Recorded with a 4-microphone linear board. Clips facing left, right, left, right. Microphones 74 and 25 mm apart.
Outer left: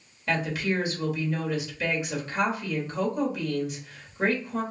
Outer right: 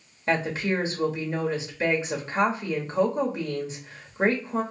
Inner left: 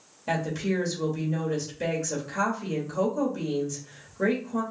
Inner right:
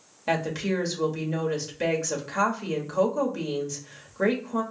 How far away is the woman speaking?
About 1.2 m.